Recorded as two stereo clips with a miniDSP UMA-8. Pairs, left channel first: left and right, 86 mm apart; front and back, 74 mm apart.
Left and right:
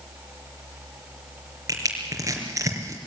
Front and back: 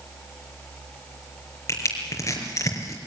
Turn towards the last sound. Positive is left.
turn(degrees=-40)